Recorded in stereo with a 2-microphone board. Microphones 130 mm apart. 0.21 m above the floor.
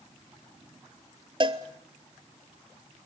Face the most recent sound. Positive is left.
turn(degrees=-40)  # may be behind; listen again after turning